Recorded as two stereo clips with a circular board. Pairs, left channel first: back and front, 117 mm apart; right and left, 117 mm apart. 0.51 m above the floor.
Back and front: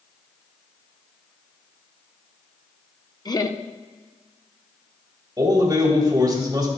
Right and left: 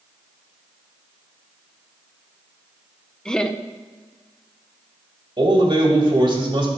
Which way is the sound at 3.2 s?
170° right.